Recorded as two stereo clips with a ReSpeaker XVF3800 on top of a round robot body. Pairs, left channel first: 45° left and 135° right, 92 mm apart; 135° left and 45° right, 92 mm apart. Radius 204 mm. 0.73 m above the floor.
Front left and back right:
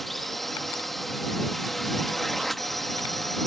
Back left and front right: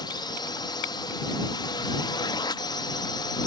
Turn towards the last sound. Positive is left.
turn(degrees=135)